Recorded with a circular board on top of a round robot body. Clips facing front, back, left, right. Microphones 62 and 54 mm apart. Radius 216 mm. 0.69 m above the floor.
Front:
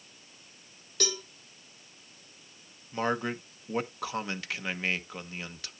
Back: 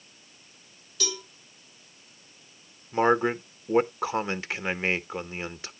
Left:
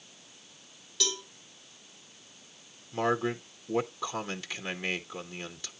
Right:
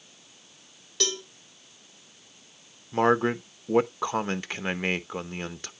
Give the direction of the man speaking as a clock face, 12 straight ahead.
4 o'clock.